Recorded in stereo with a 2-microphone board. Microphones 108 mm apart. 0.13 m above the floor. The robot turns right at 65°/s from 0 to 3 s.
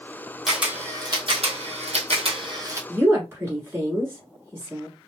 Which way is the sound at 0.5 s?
Centre (ahead or behind).